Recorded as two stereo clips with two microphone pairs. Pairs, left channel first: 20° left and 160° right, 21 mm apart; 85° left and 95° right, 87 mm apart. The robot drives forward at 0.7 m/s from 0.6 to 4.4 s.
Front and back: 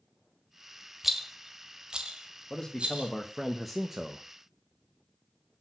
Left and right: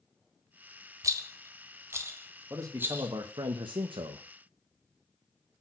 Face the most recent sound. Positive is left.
turn(degrees=-115)